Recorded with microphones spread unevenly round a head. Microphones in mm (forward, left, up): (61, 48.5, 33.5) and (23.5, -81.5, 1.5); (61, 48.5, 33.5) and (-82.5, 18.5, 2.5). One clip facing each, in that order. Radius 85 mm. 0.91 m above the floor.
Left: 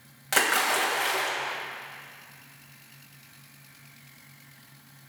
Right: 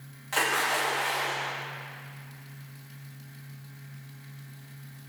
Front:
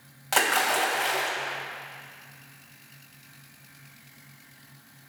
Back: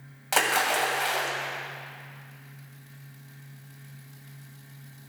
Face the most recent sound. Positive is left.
turn(degrees=105)